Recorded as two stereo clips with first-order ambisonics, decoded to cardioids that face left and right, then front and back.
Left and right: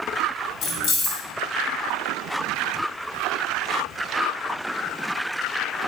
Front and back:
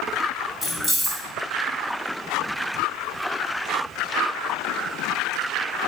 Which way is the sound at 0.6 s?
80° left.